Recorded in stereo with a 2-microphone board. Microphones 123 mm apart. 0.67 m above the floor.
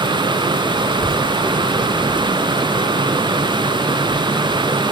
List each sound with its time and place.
0.9 s a child speaking: 45° right (ahead or behind), 1.4 m; by 4.8 s 25° right (ahead or behind), 3.5 m